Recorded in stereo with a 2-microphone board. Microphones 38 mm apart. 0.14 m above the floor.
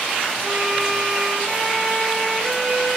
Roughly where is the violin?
Centre.